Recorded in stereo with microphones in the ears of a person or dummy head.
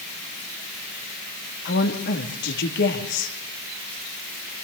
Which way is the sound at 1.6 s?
55° left (ahead or behind).